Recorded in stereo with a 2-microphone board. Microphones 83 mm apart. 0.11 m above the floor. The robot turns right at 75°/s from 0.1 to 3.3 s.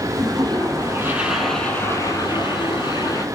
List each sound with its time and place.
0.2 s a toilet flushing: 95° right, 3 m; by 3.2 s 140° left, 3 m